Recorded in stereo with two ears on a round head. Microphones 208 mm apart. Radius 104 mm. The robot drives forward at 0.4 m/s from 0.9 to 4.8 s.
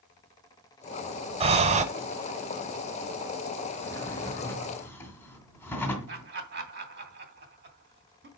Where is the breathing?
25° right (ahead or behind), 1.1 m; by 1.9 s 30° right (ahead or behind), 0.9 m.